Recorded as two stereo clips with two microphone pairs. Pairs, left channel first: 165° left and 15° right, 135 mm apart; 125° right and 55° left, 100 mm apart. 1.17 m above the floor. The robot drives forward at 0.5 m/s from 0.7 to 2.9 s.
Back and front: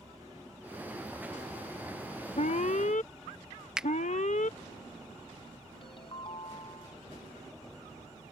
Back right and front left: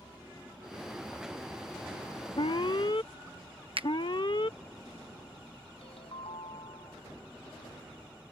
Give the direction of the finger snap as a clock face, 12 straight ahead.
10 o'clock.